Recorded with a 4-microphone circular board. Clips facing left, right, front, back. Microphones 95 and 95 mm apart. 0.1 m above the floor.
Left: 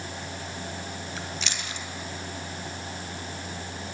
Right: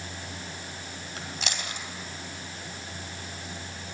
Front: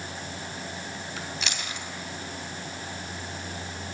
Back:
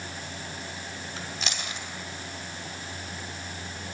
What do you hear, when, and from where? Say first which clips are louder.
1.2 s chewing: left 1 dB, even; 130° right, 1.7 m